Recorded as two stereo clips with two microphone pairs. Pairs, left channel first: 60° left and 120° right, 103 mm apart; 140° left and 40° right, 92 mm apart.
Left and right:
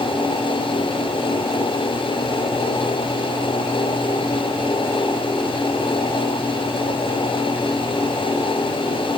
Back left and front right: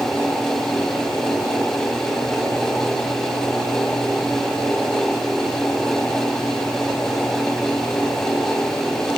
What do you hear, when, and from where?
Only background noise.